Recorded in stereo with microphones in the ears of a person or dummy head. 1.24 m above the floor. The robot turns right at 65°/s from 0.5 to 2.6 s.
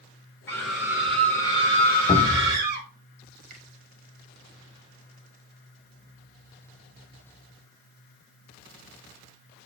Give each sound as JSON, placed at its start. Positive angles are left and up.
{"t": 0.5, "sound": "a scream", "azimuth_deg": 165, "distance_m": 3.0}
{"t": 2.1, "sound": "a cupboard door", "azimuth_deg": 155, "distance_m": 1.7}
{"t": 3.5, "sound": "a finger snap", "side_deg": -50, "distance_m": 3.0}